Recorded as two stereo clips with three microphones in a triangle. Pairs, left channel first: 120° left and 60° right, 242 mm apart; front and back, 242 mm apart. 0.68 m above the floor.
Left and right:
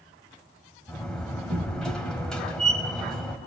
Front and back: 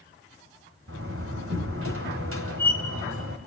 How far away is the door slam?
About 2.5 m.